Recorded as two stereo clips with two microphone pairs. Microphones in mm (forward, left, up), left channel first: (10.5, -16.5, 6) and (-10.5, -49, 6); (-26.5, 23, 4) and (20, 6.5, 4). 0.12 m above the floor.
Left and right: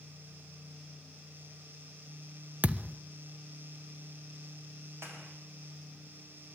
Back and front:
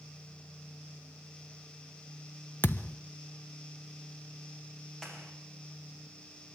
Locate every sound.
2.6 s a thud: 170° right, 1.2 m
5.0 s a clap: 120° right, 6 m